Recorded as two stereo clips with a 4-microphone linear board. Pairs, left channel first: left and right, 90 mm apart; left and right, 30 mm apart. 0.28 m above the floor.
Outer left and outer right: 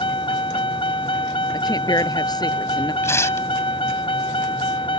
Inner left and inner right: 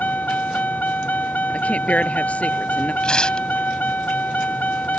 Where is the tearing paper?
30° left (ahead or behind).